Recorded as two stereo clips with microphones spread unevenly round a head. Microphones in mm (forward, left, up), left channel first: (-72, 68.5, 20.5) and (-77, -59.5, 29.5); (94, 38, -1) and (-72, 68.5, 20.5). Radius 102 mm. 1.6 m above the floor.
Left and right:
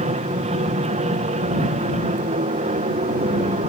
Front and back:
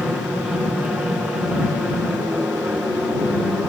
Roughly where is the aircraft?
Right.